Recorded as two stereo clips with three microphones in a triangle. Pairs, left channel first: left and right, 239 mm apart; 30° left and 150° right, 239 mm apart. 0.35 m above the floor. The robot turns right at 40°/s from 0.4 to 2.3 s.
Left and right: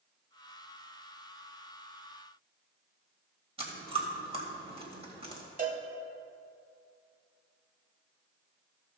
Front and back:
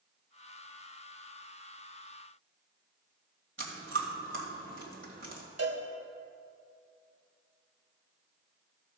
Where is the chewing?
150° right, 1.9 m.